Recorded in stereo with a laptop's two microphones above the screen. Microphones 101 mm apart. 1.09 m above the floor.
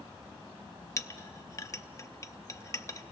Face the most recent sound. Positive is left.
turn(degrees=30)  # may be behind; listen again after turning